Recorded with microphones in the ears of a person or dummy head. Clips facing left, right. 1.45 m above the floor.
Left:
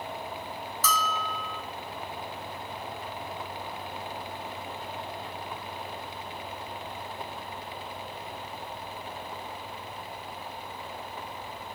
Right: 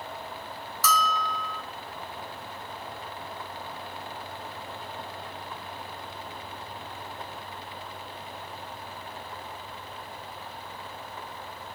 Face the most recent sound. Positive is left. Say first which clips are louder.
# right 3 dB
turn(degrees=-50)  # may be behind; listen again after turning